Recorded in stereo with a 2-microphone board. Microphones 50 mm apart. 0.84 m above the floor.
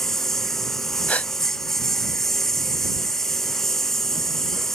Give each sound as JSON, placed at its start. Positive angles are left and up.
{"t": 0.0, "sound": "a lawn mower", "side_deg": 5}
{"t": 1.1, "sound": "a gasp", "side_deg": 30}